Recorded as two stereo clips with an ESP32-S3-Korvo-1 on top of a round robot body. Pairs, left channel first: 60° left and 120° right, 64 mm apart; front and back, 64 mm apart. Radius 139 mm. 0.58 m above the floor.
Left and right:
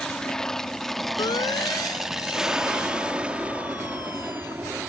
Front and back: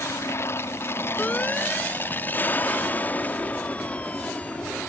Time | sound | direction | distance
0.0 | an aircraft | 10° right | ?
1.2 | a siren | 70° left | ?